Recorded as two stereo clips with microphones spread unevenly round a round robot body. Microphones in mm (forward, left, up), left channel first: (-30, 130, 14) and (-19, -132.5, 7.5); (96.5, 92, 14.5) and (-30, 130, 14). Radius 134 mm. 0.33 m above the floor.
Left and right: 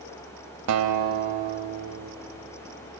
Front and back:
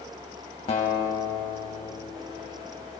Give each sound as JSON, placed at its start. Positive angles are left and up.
{"t": 0.7, "sound": "a guitar", "azimuth_deg": -70, "distance_m": 0.7}